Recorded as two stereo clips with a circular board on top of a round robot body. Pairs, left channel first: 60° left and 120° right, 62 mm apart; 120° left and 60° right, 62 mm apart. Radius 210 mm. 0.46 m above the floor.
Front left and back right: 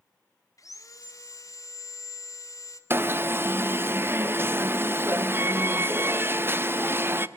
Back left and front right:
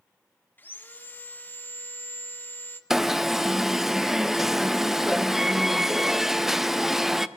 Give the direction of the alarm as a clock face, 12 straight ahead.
5 o'clock.